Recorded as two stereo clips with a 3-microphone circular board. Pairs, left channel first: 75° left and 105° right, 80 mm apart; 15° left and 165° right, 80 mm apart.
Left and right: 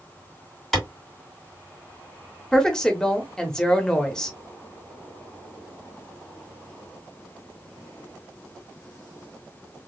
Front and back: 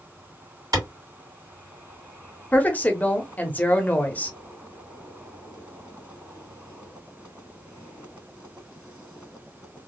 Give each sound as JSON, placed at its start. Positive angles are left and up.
{"t": 0.7, "sound": "a clap", "azimuth_deg": 160, "distance_m": 2.5}
{"t": 2.5, "sound": "a woman speaking", "azimuth_deg": 10, "distance_m": 0.9}